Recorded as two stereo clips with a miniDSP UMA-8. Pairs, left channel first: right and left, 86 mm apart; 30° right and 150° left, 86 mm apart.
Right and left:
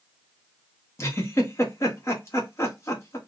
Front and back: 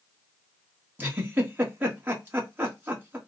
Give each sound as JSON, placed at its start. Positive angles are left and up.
{"t": 1.0, "sound": "a giggle", "azimuth_deg": -145, "distance_m": 1.2}